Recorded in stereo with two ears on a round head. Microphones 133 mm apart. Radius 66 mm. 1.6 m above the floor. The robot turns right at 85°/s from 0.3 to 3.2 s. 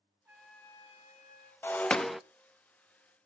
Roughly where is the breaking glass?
Centre.